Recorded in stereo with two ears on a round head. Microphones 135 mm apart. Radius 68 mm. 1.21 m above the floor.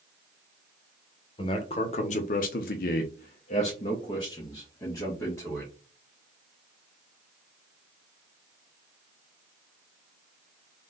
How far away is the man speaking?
About 0.9 m.